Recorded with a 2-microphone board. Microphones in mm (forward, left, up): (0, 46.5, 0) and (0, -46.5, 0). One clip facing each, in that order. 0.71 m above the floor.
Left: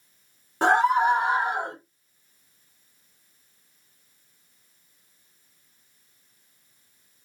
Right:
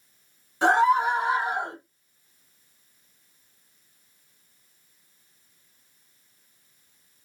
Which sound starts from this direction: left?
A scream, at 0.6 s.